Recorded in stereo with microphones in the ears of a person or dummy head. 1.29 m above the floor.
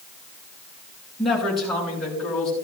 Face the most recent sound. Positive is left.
turn(degrees=5)  # may be behind; listen again after turning